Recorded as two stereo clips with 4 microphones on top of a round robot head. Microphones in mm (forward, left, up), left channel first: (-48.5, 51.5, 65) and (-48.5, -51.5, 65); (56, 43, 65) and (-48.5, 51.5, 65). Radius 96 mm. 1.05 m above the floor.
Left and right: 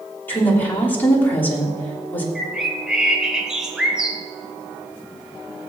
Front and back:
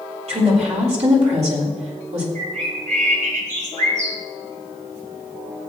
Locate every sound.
0.3 s a woman speaking: 160° left, 3.5 m
2.4 s a bird: 175° right, 1.7 m